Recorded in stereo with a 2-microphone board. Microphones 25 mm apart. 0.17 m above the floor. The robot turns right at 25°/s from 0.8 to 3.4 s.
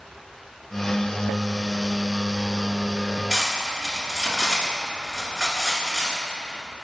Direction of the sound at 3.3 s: Centre (ahead or behind).